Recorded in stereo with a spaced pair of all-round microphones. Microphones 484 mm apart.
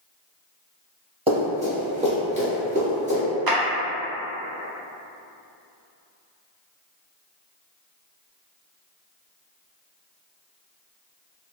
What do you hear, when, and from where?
1.3 s running footsteps: 10° right (ahead or behind), 1.6 m; by 3.2 s 15° right (ahead or behind), 1.5 m
3.5 s a clap: 50° right (ahead or behind), 0.6 m